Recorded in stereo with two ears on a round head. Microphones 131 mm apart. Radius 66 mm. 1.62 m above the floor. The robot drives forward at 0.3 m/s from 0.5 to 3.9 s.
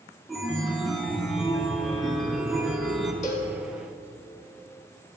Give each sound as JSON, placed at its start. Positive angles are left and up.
{"t": 0.3, "sound": "a chime", "side_deg": 0, "distance_m": 0.9}
{"t": 3.2, "sound": "a cowbell", "side_deg": 50, "distance_m": 1.7}